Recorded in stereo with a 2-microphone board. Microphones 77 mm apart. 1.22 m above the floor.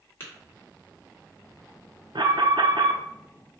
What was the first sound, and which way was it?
Tapping, 30° left (ahead or behind).